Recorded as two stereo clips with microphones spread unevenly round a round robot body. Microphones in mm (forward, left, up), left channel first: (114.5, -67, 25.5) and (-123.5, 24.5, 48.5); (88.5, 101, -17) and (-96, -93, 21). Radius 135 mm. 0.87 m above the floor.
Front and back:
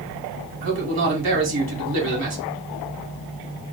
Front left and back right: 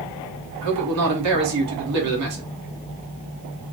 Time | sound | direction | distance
0.6 | a man speaking | 160° right | 1.6 m